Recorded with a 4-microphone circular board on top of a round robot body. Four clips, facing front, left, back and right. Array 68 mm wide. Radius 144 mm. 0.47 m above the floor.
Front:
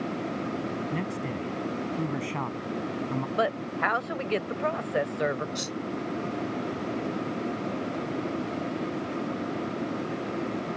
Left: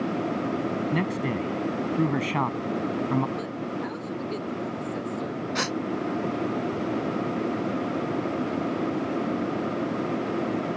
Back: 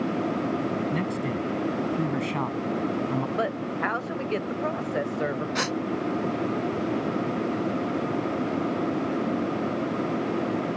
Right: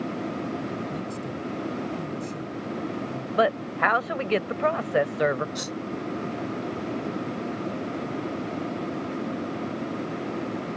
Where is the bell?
No bell in this recording.